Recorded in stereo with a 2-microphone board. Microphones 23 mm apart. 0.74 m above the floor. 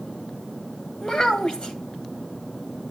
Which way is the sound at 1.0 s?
35° left (ahead or behind).